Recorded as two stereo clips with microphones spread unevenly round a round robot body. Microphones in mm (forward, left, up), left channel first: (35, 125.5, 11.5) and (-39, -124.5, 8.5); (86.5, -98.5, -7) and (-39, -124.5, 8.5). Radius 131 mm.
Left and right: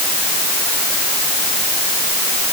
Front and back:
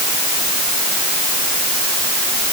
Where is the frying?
No frying in this recording.